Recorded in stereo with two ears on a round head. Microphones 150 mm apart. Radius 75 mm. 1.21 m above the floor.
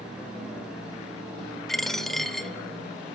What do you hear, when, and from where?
1.7 s a dropped coin: centre (ahead or behind), 1.0 m